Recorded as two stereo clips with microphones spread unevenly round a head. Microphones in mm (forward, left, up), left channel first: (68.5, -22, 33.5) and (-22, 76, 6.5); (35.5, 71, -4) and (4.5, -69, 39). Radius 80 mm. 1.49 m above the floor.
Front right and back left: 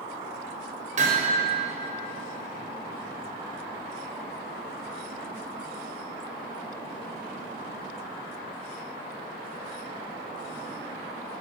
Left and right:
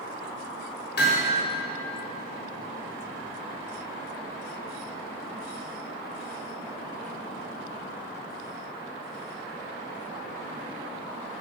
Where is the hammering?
100° left, 6 m.